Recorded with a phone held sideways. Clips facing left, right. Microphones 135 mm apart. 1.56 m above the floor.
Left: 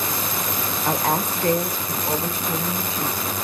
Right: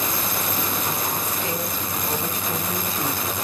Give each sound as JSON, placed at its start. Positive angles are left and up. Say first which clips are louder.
{"t": 0.8, "sound": "a woman speaking", "louder": "left 5 dB", "side_deg": 75, "distance_m": 1.0}